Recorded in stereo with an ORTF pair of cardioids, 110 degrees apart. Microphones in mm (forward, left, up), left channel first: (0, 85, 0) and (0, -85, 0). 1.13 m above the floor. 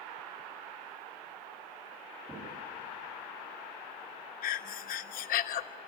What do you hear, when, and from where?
2.3 s knocking: 15° right, 7.5 m
4.4 s breathing: 60° left, 1.0 m